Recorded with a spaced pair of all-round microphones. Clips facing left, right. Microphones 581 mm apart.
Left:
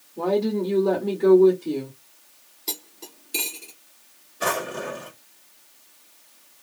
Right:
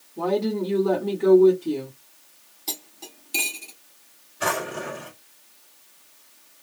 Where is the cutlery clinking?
15° right (ahead or behind), 0.8 m.